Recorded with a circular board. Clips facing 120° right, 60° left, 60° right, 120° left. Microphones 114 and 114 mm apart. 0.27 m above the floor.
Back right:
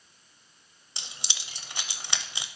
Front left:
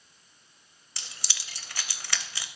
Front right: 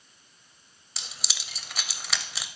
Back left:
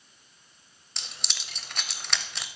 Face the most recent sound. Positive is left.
turn(degrees=-140)